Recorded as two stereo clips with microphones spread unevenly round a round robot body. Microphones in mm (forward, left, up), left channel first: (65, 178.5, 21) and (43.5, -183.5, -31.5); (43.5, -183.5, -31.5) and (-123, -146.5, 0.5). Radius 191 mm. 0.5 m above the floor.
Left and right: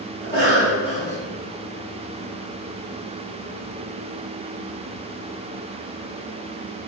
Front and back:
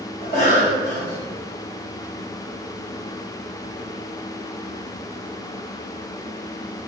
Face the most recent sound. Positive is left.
turn(degrees=-15)